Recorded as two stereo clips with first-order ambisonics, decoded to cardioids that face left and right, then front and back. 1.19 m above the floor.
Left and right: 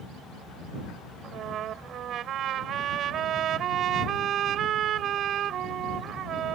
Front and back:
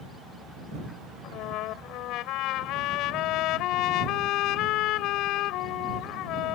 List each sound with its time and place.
1.2 s a trumpet: 40° right